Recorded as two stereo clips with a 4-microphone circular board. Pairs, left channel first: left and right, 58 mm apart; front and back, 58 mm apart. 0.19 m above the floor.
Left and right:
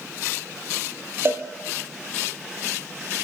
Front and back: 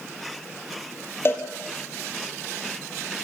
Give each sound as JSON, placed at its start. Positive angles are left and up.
{"t": 1.2, "sound": "a cowbell", "azimuth_deg": -45, "distance_m": 2.0}